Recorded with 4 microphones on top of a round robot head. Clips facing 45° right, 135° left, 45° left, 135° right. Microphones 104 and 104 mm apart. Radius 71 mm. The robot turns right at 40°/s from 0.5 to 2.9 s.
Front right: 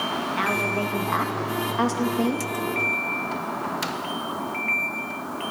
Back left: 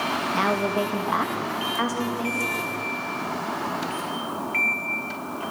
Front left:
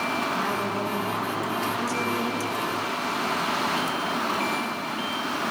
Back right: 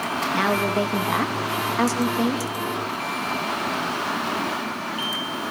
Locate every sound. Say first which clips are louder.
0.3 s a woman speaking: back left 4 dB, back right 5 dB; 165° right, 2 m; by 2.5 s 85° right, 2 m